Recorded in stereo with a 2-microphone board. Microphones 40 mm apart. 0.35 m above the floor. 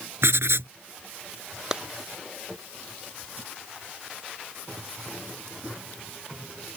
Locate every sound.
0.2 s writing: 85° right
1.7 s a clap: 15° right (ahead or behind)